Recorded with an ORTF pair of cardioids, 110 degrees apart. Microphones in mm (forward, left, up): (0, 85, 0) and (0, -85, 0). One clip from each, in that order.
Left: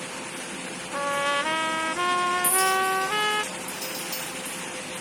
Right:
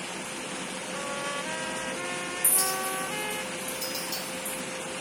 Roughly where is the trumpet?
Ahead left.